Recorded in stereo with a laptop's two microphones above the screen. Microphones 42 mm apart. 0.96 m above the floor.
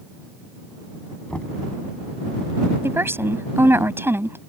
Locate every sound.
1.3 s knocking: 30° left (ahead or behind)
2.8 s a woman speaking: 70° right (ahead or behind)